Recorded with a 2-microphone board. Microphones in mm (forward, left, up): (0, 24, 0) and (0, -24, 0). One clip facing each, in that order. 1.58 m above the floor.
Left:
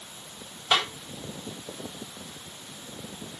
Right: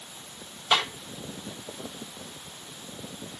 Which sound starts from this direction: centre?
A snare drum, at 0.7 s.